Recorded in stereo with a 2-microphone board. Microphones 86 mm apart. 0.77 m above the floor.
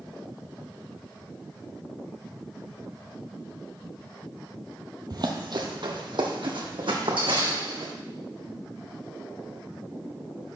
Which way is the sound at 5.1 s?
55° right (ahead or behind).